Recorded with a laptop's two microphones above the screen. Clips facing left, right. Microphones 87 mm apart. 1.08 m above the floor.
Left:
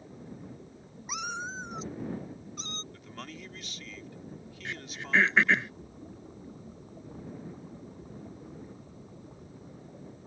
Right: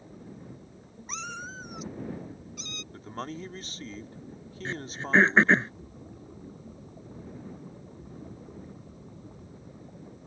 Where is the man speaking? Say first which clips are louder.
Right 7 dB; 35° right (ahead or behind).